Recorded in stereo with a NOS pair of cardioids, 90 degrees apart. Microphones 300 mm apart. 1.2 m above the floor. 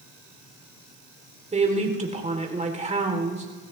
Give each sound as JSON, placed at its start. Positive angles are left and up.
{"t": 1.5, "sound": "a woman speaking", "azimuth_deg": -25, "distance_m": 3.0}